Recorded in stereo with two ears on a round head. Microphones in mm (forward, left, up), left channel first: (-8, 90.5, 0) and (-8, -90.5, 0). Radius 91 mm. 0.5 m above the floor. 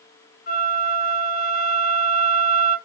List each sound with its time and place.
0.5 s a flute: 50° left (ahead or behind), 4 m